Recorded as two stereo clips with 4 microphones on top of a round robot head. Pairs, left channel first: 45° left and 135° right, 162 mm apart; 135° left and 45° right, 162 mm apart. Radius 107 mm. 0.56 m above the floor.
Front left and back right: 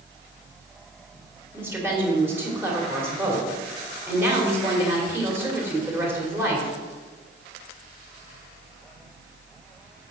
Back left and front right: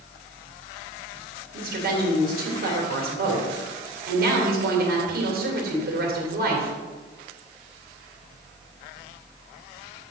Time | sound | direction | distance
1.5 | a woman speaking | 60° right | 2.5 m